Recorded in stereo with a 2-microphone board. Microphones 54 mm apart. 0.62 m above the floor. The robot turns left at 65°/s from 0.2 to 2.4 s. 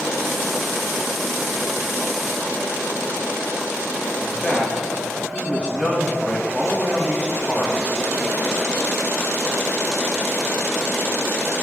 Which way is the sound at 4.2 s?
25° left (ahead or behind).